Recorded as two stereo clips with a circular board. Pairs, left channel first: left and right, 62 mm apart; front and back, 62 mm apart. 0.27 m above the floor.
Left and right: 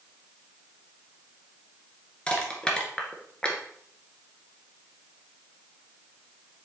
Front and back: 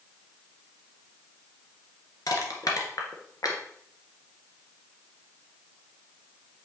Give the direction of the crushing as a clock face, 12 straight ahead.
11 o'clock.